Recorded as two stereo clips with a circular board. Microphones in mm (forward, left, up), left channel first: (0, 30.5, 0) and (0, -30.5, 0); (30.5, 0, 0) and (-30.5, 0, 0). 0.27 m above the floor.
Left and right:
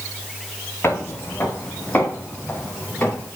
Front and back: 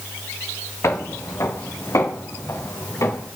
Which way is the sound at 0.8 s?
40° left.